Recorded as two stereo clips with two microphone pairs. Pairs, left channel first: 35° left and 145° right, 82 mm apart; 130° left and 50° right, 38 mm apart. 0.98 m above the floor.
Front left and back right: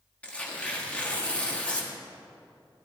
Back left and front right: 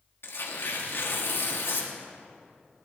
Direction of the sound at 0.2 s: 115° left.